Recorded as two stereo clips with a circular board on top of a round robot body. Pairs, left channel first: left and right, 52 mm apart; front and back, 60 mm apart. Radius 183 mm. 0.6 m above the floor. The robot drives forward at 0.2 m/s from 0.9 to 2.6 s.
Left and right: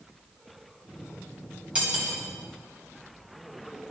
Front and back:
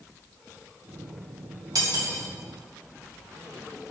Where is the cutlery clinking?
160° right, 3.5 m.